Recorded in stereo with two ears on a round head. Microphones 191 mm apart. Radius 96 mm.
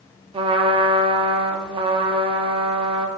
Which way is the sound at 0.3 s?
25° right (ahead or behind).